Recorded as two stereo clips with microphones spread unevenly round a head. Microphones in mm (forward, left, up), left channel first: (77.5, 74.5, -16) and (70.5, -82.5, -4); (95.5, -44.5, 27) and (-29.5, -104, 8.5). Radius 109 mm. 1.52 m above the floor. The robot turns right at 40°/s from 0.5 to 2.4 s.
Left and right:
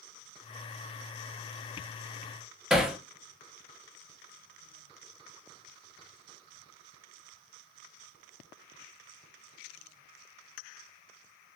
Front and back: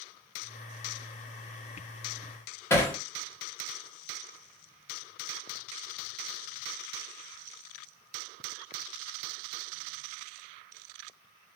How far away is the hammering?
About 1.0 m.